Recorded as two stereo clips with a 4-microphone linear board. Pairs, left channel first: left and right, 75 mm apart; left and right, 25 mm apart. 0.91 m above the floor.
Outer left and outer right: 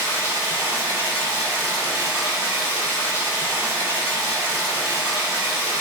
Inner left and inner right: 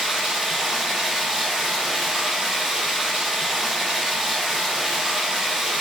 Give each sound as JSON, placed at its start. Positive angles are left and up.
{"t": 0.0, "sound": "running water", "side_deg": -30, "distance_m": 1.7}